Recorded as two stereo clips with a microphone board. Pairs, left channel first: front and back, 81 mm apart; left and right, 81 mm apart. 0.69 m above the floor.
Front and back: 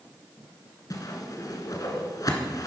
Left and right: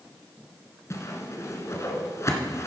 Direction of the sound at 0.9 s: 40° left.